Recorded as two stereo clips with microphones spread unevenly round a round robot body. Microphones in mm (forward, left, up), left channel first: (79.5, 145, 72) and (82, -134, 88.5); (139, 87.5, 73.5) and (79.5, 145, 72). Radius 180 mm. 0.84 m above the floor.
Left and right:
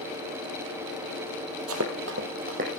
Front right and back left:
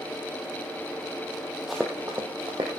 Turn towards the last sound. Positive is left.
turn(degrees=-155)